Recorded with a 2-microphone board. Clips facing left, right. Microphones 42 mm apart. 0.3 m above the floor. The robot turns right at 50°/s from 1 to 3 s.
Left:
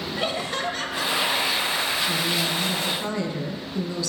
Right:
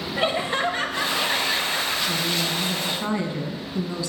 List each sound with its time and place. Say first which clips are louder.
0.2 s laughter: right 5 dB; 25° right (ahead or behind), 1.7 m
2.1 s a woman speaking: even; 155° left, 2.5 m; by 4.1 s 155° right, 2.5 m